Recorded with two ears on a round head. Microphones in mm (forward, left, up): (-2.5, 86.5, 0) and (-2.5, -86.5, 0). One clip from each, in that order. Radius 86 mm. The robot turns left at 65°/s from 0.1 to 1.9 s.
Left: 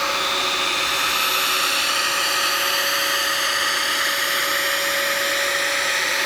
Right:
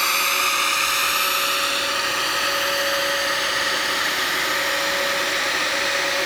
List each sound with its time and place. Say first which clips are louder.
0.0 s a drone: right 1 dB; 70° right (ahead or behind); by 6.2 s 30° left (ahead or behind)